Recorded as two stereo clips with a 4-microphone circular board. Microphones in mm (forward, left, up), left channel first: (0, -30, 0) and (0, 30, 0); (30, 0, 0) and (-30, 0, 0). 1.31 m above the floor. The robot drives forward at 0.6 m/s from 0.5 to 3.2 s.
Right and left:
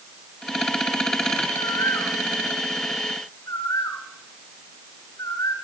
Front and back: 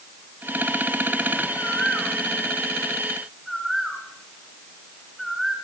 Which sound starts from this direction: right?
A bird, at 1.6 s.